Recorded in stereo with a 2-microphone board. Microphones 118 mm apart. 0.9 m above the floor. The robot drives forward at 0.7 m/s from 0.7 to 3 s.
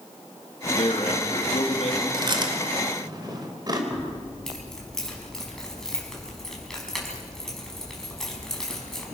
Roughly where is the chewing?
Right.